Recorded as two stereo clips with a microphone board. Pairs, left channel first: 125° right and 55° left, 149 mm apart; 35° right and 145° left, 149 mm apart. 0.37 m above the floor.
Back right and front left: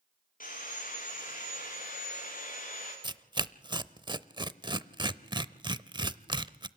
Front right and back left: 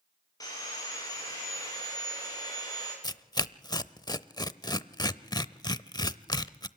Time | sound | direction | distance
0.4 | sawing | 100° right | 9.5 m
3.0 | tearing paper | 10° left | 0.6 m